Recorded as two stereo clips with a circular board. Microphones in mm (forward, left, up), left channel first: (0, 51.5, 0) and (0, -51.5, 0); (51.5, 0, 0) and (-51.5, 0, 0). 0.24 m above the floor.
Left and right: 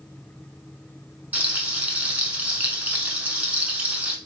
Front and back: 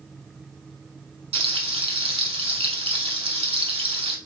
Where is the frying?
165° right, 0.7 m.